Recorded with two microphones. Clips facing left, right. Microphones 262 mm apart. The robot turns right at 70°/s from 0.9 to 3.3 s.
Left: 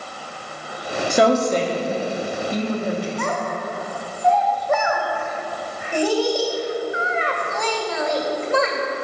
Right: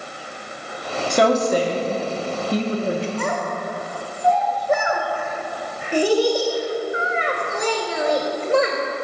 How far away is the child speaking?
About 1.7 m.